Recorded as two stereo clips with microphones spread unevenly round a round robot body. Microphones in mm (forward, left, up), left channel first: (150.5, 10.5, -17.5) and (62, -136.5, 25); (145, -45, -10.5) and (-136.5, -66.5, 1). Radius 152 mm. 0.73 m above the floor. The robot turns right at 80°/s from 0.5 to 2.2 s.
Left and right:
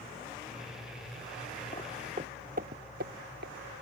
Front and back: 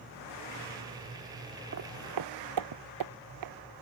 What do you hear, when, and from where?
1.7 s footsteps: 130° left; by 3.5 s 165° right